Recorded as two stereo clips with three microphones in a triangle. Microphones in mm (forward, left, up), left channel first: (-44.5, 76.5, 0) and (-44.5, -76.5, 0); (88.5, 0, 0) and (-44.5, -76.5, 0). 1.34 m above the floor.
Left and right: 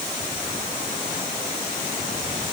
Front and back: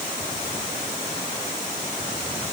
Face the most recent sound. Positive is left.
No sound to turn to.